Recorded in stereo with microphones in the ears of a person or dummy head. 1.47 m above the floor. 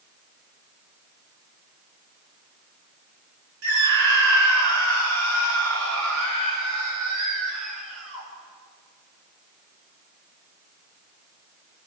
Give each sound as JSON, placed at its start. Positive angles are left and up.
{"t": 3.6, "sound": "a scream", "side_deg": -70, "distance_m": 5.5}